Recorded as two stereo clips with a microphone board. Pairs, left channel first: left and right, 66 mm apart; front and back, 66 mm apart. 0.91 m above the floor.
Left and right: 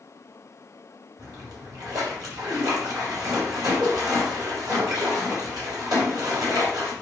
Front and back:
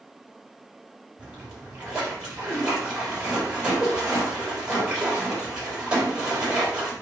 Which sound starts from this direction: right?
A splash, at 1.2 s.